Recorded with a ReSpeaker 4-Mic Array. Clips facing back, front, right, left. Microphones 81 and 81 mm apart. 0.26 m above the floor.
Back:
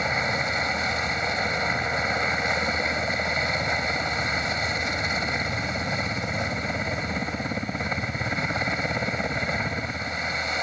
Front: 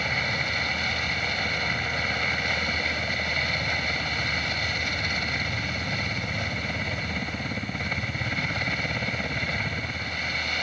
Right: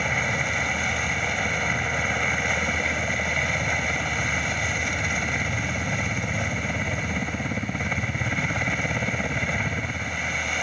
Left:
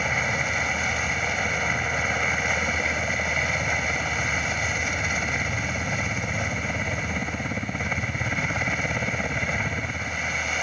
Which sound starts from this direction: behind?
A helicopter, at 0.0 s.